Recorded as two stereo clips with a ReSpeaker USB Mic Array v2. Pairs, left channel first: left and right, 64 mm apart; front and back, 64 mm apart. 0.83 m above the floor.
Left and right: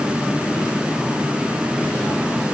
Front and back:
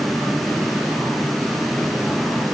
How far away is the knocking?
I don't hear knocking.